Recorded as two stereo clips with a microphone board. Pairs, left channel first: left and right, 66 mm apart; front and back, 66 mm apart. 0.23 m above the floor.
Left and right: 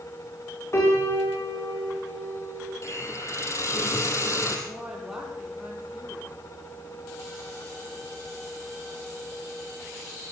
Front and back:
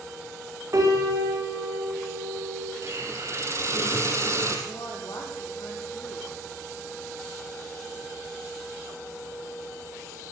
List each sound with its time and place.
0.7 s a piano: 135° left, 7 m
2.8 s a hiss: 135° left, 3.5 m
4.7 s a woman speaking: 5° right, 5.5 m